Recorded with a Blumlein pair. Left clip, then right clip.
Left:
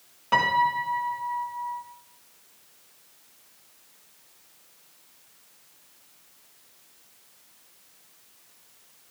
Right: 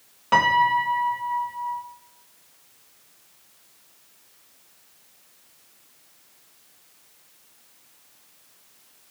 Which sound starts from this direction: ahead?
A piano, at 0.3 s.